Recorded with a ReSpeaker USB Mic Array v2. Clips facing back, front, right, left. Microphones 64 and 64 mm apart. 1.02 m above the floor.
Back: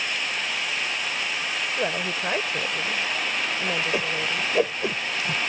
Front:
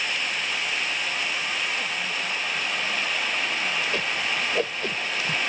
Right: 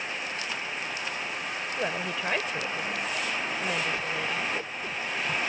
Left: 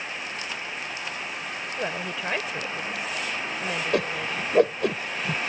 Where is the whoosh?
105° left.